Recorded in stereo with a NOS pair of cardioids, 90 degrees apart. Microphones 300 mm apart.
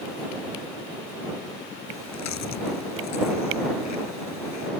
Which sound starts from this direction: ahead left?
Chewing, at 1.9 s.